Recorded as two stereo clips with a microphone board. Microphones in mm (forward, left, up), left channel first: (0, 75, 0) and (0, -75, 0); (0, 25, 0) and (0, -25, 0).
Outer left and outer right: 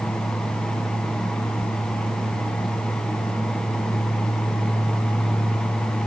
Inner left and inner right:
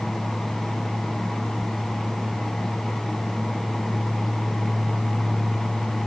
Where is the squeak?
No squeak in this recording.